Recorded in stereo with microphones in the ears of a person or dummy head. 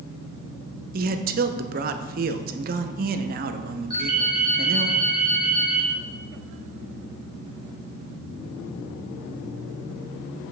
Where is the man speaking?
45° right (ahead or behind), 0.5 m.